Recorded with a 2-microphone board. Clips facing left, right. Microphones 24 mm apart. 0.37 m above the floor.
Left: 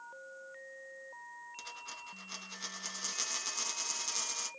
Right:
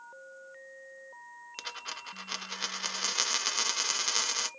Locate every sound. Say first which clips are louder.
1.6 s a dropped coin: right 9 dB; 50° right (ahead or behind), 0.5 m